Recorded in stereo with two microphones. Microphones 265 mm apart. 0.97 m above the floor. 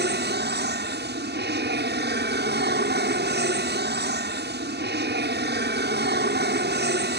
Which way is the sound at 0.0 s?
40° right (ahead or behind).